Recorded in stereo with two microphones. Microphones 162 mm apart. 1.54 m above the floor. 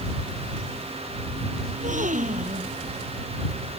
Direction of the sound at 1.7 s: 55° right (ahead or behind).